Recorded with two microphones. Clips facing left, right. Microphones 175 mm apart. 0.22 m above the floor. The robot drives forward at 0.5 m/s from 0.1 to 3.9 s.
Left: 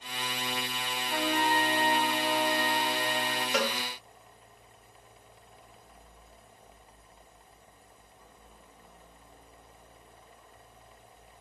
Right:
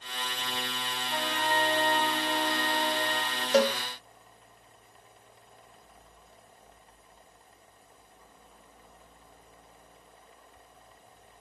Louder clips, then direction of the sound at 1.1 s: Left 3 dB; 30° left (ahead or behind).